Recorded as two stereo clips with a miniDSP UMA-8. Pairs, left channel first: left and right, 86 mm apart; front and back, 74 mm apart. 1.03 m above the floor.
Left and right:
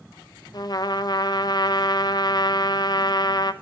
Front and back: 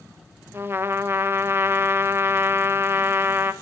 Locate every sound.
0.5 s a trumpet: 125° left, 0.5 m